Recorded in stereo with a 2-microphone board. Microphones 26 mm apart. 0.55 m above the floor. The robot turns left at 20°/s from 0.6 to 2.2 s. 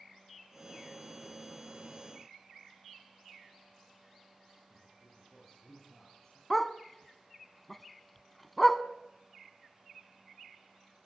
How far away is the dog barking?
About 1.0 m.